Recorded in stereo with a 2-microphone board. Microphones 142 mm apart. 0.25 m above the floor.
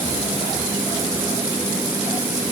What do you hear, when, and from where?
Only background noise.